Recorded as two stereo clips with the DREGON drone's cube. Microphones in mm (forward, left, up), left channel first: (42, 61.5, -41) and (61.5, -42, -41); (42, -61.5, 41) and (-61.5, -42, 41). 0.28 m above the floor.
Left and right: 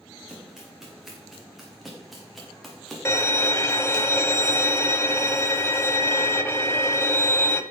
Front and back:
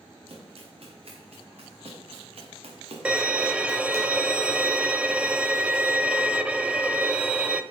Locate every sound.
0.3 s running footsteps: 165° right, 5 m; by 4.0 s straight behind, 2.5 m
3.0 s a violin: 105° left, 0.8 m